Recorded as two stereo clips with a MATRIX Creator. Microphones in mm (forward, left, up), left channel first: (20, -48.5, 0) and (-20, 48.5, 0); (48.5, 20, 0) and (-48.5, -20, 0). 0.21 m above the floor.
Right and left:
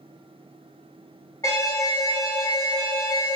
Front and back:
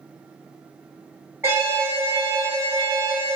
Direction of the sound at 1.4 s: 105° right.